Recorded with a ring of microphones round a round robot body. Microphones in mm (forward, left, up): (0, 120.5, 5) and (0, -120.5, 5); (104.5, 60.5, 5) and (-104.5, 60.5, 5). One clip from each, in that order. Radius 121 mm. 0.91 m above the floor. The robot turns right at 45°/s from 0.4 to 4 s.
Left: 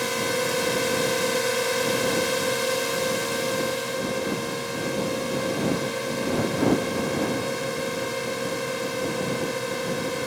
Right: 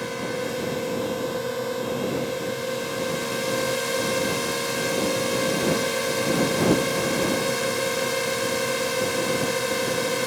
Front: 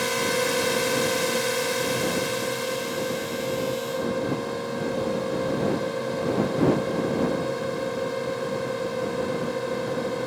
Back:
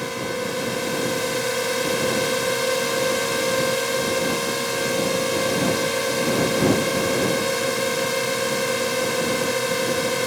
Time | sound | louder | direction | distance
0.0 | a drone | left 4 dB, front 3 dB | 40° left | ?